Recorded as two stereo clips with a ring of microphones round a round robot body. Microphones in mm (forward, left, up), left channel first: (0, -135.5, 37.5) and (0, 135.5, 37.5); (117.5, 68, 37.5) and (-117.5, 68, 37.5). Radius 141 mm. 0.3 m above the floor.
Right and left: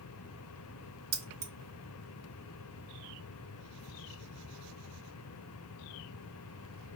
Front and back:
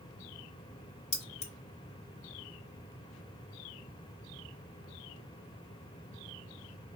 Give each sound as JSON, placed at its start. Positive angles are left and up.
{"t": 1.1, "sound": "keys jangling", "azimuth_deg": 55, "distance_m": 0.7}